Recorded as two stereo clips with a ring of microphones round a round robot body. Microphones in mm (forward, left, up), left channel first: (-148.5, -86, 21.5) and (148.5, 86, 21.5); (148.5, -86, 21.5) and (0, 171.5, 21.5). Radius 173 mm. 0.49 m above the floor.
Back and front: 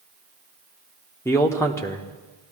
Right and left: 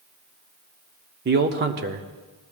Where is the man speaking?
135° left, 0.9 m.